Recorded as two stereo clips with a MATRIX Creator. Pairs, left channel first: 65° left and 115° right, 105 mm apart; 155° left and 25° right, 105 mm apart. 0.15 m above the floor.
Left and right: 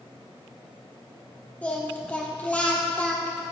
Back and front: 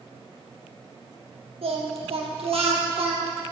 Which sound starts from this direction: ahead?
Singing, at 1.6 s.